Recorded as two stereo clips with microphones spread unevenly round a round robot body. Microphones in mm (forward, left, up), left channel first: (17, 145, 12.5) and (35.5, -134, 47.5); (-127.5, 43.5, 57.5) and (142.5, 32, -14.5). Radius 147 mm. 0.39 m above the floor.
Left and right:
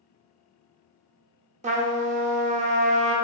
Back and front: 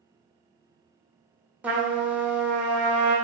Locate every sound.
1.6 s a trumpet: 40° right, 0.9 m